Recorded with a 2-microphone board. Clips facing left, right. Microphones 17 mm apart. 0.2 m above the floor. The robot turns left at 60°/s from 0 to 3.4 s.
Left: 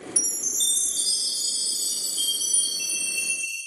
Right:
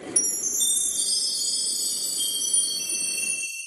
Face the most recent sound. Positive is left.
turn(degrees=-20)